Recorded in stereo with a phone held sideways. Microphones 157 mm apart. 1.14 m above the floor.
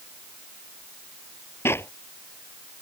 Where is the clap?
15° left (ahead or behind).